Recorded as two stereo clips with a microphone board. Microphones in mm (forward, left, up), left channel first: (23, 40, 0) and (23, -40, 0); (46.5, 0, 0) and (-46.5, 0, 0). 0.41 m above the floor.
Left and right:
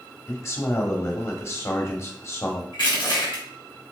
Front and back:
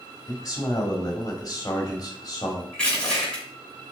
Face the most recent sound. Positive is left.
turn(degrees=80)